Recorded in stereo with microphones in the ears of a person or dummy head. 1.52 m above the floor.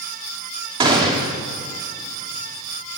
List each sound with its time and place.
0.8 s a gunshot: 30° right (ahead or behind), 2 m